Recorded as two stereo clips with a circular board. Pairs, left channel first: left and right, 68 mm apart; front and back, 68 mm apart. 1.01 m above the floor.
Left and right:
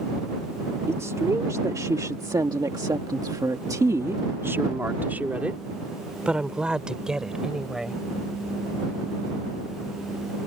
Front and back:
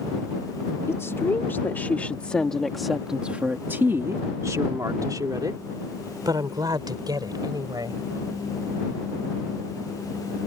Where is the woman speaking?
45° right; by 8.0 s 175° right.